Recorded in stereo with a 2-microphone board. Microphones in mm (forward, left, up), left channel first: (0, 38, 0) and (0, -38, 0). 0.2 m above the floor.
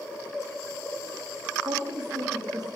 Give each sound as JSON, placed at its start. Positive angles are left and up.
{"t": 1.6, "sound": "a woman speaking", "side_deg": -70, "distance_m": 9.0}